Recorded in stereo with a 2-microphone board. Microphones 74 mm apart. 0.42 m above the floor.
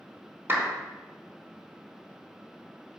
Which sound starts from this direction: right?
A clap, at 0.5 s.